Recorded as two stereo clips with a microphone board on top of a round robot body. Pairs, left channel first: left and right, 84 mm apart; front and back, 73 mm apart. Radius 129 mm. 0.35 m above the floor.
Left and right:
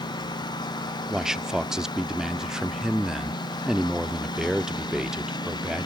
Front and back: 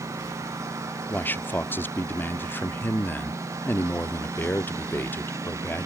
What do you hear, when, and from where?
0.0 s a lawn mower: 125° left
1.1 s a man speaking: 15° right